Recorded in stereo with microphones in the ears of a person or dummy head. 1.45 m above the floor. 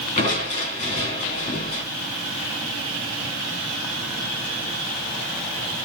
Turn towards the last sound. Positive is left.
turn(degrees=35)  # may be behind; listen again after turning